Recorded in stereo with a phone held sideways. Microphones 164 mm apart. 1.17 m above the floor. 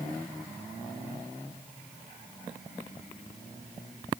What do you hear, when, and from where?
Only background noise.